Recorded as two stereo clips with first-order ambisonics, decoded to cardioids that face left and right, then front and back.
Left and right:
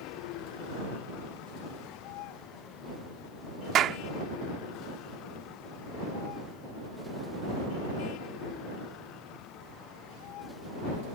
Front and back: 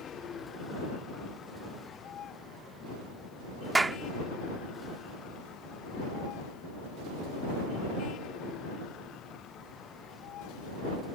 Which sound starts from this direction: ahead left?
A vehicle, at 0.0 s.